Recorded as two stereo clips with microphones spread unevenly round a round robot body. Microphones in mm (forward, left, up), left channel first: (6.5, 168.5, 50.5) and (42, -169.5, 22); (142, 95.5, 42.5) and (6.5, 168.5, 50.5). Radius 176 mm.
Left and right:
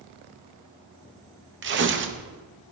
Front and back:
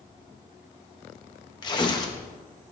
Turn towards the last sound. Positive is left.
turn(degrees=-70)